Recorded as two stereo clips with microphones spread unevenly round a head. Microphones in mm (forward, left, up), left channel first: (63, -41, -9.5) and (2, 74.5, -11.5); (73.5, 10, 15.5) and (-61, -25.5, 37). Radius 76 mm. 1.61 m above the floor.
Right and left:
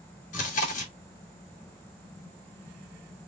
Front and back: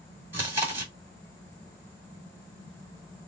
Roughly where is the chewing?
Right.